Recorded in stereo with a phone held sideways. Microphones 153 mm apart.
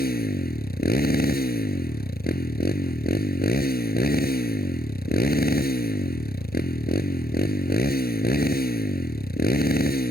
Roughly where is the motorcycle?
Left.